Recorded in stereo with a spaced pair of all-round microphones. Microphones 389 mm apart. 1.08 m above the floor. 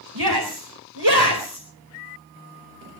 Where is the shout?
85° right, 4 m.